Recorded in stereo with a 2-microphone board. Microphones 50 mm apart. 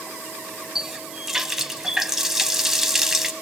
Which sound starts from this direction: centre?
A running tap, at 0.8 s.